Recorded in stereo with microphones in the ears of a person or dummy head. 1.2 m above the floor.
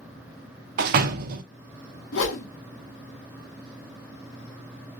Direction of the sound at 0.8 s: 55° right (ahead or behind).